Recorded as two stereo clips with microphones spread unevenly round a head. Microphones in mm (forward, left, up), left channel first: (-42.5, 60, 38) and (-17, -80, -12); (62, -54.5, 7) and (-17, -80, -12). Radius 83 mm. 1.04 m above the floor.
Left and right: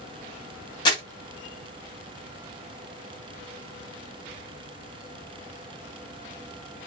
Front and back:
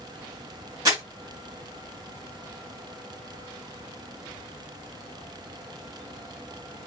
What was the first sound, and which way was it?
Crumpling, 135° left.